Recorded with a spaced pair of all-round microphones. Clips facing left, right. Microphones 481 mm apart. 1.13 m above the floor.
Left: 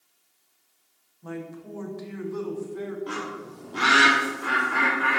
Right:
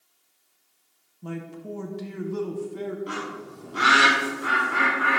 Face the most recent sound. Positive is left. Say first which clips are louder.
# even
turn(degrees=15)  # may be behind; listen again after turning